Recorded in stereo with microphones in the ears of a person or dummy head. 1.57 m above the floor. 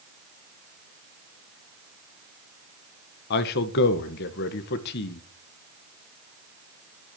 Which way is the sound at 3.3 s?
55° left (ahead or behind).